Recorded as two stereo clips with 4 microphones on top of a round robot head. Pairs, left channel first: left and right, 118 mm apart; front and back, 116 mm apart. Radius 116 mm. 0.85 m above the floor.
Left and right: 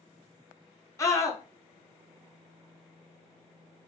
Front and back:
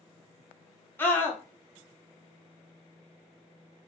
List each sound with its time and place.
1.0 s a scream: 55° left, 0.9 m